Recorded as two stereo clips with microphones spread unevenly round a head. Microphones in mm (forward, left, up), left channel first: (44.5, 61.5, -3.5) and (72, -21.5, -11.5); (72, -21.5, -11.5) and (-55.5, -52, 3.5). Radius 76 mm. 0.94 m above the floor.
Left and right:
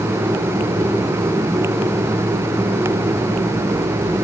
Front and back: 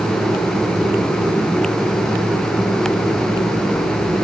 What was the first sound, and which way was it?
Only background noise.